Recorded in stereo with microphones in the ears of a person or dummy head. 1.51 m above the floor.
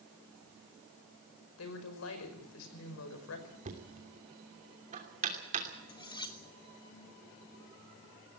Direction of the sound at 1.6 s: 80° left.